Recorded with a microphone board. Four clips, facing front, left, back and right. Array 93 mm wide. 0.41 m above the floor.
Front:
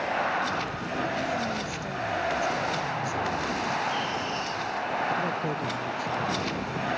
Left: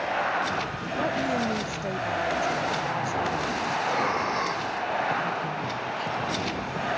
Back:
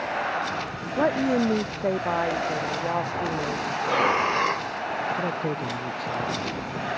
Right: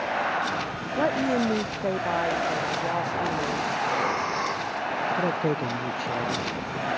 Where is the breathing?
175° right.